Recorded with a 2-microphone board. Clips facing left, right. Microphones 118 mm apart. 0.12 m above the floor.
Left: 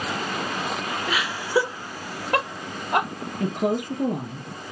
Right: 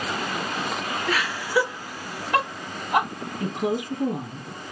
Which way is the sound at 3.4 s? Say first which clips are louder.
Left 2 dB; 55° left (ahead or behind).